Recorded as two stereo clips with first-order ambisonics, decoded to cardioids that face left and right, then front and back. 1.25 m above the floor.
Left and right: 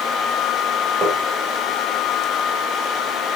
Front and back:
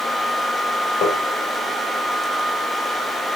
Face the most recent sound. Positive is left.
turn(degrees=-30)